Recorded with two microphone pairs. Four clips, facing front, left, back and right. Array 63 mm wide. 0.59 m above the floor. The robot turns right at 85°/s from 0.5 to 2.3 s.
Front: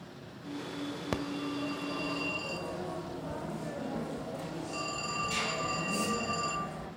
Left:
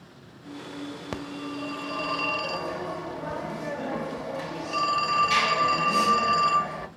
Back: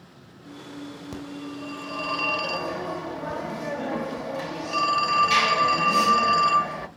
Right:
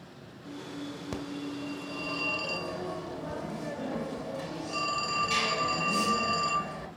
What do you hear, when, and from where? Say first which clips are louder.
1.1 s a phone ringing: left 2 dB, front 2 dB; 50° left, 1.2 m; by 6.9 s 150° left, 1.2 m